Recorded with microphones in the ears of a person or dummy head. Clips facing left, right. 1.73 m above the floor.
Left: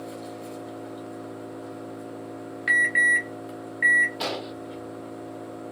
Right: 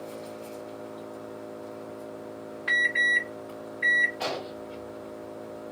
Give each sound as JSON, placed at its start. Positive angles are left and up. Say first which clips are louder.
{"t": 0.0, "sound": "an engine running", "louder": "left 2 dB", "side_deg": 35, "distance_m": 2.0}
{"t": 2.7, "sound": "an alarm", "louder": "left 3 dB", "side_deg": 30, "distance_m": 1.9}
{"t": 4.2, "sound": "an explosion", "louder": "left 1 dB", "side_deg": 45, "distance_m": 1.0}